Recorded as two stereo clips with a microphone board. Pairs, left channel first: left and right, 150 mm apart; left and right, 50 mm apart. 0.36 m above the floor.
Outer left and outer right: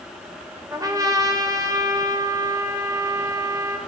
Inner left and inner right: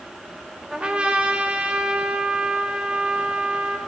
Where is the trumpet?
25° right (ahead or behind), 0.8 m.